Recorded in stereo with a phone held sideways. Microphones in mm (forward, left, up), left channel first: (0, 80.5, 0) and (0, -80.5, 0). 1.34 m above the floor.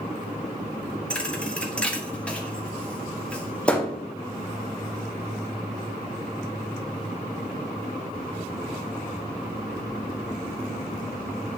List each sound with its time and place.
1.1 s a thud: 5° left (ahead or behind), 0.9 m